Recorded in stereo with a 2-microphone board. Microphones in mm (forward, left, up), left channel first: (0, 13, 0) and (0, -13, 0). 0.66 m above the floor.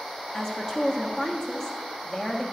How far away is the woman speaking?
About 1.2 m.